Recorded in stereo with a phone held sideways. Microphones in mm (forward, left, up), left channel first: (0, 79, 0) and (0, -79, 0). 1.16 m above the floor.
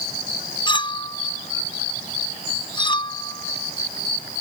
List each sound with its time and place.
0.7 s a clink: 30° left (ahead or behind)